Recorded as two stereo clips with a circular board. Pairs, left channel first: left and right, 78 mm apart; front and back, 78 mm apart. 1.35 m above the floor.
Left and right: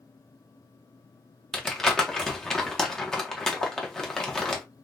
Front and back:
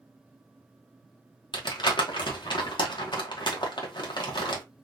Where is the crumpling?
5° left, 0.9 m.